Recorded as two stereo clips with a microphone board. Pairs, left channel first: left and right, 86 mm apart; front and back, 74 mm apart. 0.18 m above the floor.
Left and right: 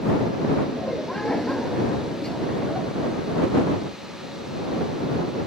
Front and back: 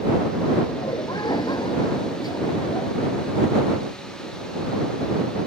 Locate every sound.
0.7 s laughter: 5° left